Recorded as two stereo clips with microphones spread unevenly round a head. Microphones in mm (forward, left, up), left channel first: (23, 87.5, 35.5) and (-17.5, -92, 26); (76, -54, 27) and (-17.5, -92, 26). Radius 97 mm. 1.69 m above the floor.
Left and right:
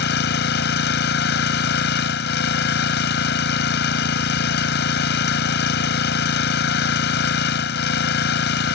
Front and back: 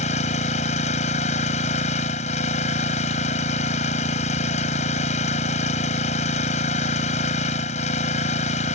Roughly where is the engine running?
Ahead left.